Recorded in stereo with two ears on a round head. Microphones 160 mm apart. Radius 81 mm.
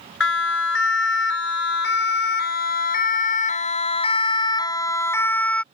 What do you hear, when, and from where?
0.2 s a siren: 85° left; by 5.6 s 5° left (ahead or behind)